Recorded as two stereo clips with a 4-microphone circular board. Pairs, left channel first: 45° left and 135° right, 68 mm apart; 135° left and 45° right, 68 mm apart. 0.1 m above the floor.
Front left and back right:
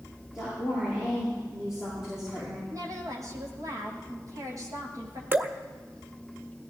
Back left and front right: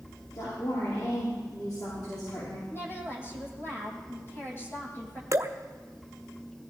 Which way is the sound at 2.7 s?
170° right.